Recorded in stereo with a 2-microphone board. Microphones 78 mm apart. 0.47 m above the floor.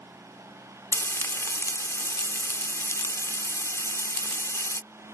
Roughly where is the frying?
Left.